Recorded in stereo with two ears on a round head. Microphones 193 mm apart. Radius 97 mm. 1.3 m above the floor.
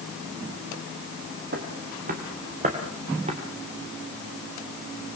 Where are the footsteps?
50° right (ahead or behind), 3 m; by 3.4 s 30° right (ahead or behind), 3 m.